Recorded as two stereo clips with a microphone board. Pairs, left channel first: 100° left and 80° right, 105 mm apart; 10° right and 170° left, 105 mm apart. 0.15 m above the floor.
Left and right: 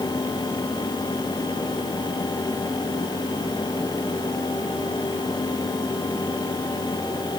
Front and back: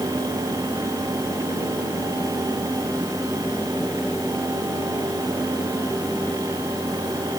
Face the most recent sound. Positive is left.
No sound to turn to.